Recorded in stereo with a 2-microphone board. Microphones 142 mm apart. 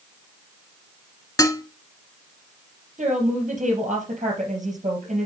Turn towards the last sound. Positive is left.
turn(degrees=-60)  # may be behind; listen again after turning